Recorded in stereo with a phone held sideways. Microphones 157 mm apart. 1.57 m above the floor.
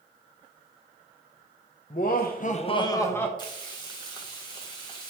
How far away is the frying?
About 1.3 m.